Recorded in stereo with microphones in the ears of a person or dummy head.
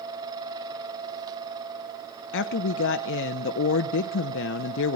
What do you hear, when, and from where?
2.3 s a woman speaking: 65° left (ahead or behind), 0.8 m